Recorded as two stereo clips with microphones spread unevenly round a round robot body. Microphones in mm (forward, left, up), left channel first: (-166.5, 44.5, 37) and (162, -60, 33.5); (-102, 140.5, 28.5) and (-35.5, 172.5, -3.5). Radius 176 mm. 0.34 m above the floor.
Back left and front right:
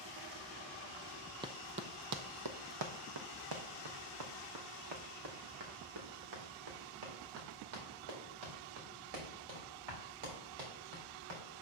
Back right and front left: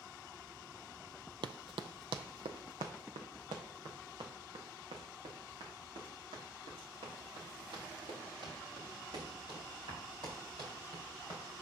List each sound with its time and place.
1.4 s running footsteps: 60° left, 0.5 m; by 11.4 s 5° right, 5.5 m